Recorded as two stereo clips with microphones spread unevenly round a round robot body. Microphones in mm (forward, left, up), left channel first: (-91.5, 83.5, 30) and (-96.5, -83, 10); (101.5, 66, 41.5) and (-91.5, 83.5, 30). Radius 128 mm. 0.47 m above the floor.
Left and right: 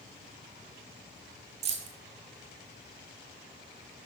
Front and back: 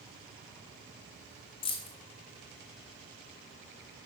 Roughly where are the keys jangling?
Ahead right.